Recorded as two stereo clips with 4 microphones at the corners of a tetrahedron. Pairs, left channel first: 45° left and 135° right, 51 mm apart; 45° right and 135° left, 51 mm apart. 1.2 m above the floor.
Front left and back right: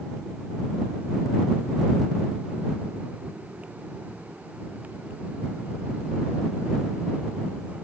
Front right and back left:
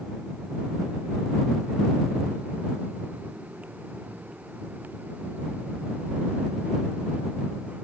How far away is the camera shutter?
No camera shutter in this recording.